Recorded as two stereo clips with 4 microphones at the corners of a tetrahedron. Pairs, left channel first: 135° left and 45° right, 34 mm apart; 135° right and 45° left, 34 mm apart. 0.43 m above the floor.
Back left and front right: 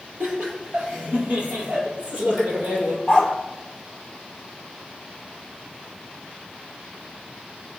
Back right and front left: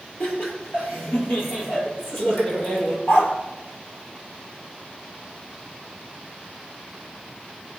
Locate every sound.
0.2 s laughter: 110° right, 9.5 m; by 3.0 s 95° right, 10 m
3.1 s a dog barking: 150° right, 3.5 m